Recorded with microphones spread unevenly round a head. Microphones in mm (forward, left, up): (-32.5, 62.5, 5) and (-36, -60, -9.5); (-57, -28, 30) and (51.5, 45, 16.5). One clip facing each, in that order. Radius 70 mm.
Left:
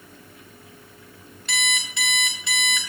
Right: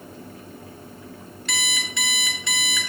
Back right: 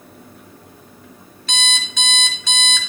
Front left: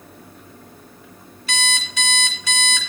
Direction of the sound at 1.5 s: 50° right.